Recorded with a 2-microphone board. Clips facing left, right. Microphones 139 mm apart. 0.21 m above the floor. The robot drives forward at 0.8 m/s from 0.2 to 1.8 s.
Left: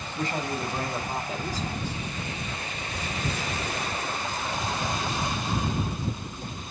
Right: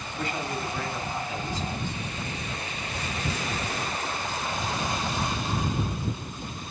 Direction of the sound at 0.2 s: 40° left (ahead or behind).